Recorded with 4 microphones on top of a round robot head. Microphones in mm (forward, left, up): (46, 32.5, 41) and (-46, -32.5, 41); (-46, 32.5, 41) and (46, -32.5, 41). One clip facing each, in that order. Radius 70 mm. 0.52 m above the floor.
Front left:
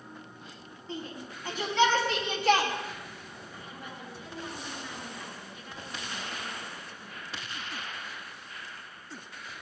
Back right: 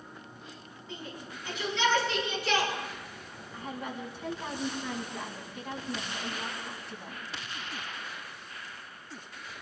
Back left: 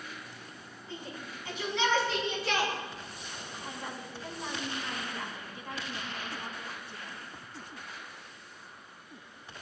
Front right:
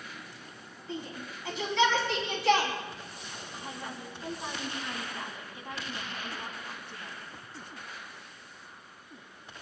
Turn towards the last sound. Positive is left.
turn(degrees=-110)